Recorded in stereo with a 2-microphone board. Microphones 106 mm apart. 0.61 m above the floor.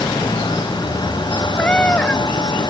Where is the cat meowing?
10° left (ahead or behind).